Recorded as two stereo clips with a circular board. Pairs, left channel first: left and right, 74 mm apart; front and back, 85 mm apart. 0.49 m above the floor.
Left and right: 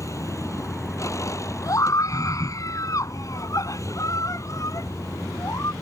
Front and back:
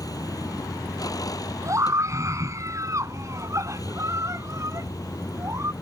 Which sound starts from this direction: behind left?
A scream, at 1.6 s.